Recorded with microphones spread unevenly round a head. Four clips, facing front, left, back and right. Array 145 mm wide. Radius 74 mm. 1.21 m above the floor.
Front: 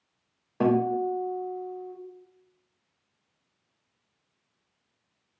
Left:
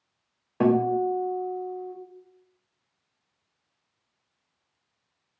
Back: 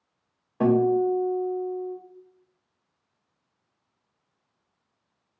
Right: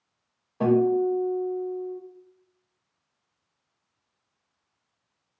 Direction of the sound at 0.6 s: 65° left.